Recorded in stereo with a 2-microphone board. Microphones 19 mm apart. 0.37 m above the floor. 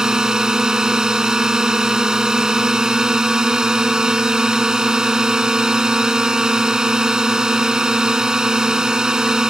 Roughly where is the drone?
Right.